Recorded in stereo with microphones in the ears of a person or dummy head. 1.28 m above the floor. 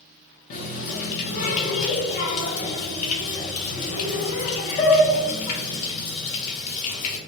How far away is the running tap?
About 0.6 m.